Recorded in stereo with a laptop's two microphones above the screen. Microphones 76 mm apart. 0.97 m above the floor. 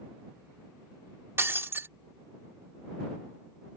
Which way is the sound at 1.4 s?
30° right (ahead or behind).